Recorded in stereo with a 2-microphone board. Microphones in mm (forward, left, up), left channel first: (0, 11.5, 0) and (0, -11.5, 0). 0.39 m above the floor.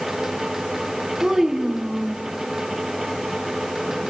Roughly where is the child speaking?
Centre.